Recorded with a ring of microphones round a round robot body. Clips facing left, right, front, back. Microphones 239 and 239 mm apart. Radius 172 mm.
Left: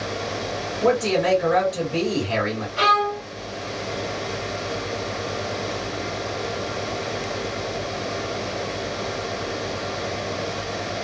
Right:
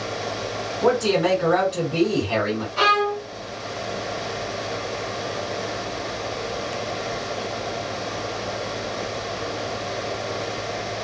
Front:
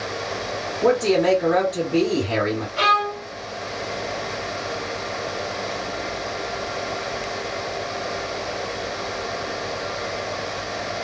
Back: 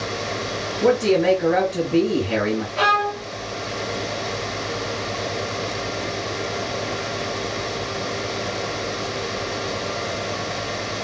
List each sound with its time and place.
0.8 s a man speaking: 160° right, 2 m
2.8 s a violin: 120° right, 1.9 m